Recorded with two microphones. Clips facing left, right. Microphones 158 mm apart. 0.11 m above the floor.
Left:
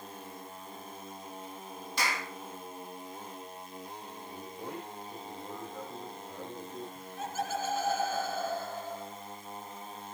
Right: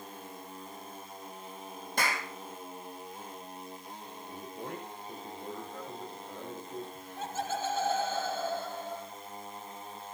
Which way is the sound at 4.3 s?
65° right (ahead or behind).